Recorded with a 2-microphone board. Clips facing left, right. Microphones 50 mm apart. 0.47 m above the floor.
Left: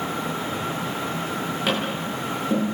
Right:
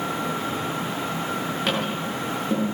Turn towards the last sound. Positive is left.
turn(degrees=5)  # may be behind; listen again after turning